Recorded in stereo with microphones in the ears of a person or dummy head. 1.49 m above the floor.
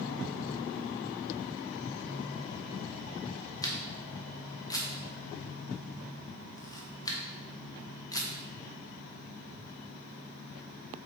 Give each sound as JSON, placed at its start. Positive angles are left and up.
{"t": 3.6, "sound": "a camera shutter", "side_deg": 20, "distance_m": 0.5}